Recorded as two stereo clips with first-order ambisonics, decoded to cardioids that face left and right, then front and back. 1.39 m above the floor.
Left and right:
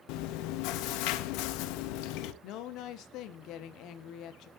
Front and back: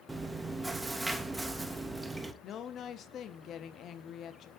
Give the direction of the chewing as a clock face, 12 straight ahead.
9 o'clock.